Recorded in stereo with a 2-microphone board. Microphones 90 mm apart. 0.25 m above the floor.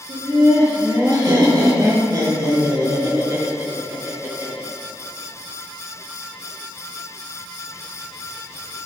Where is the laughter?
55° right (ahead or behind), 4.5 m; by 4.7 s 25° right (ahead or behind), 4.5 m.